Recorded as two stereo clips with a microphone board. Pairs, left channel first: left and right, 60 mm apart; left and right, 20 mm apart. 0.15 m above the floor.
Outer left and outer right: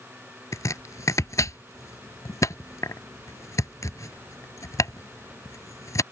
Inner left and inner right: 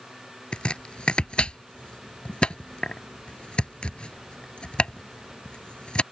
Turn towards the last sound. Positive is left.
turn(degrees=60)  # may be behind; listen again after turning